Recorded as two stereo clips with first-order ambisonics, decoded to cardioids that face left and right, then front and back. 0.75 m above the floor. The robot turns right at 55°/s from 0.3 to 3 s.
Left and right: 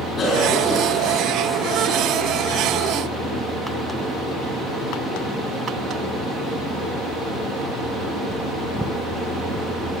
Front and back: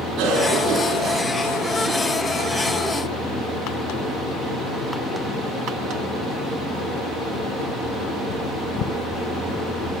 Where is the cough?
155° left, 8.5 m; by 2.1 s 105° right, 8.5 m.